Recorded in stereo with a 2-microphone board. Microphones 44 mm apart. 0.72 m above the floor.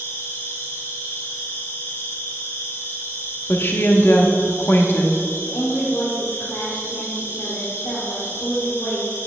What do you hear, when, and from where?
0.0 s an insect: 70° left (ahead or behind), 2 m
3.5 s a woman speaking: 50° left (ahead or behind), 0.8 m
5.4 s a woman speaking: 65° left (ahead or behind), 2 m